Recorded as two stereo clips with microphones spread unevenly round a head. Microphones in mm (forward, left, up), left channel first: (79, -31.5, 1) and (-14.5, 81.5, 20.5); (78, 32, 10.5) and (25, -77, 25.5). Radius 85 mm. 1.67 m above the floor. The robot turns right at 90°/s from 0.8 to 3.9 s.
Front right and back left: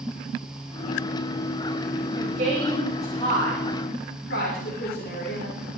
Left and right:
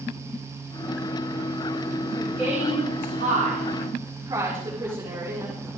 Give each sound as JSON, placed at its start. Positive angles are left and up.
{"t": 2.1, "sound": "a woman speaking", "azimuth_deg": 140, "distance_m": 5.5}